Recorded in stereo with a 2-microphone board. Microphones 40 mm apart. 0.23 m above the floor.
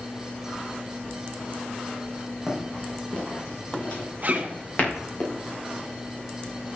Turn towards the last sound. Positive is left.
turn(degrees=-40)  # may be behind; listen again after turning